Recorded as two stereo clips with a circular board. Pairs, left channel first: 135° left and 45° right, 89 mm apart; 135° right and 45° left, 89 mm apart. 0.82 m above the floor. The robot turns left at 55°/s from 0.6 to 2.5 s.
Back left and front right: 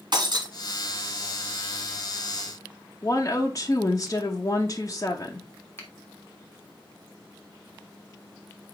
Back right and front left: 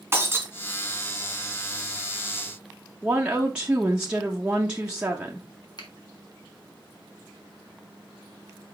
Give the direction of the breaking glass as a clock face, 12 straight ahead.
1 o'clock.